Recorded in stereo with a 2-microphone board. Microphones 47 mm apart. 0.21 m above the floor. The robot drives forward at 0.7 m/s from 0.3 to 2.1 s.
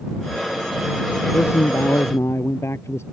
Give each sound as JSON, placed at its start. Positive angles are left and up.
{"t": 1.3, "sound": "a man speaking", "side_deg": 75}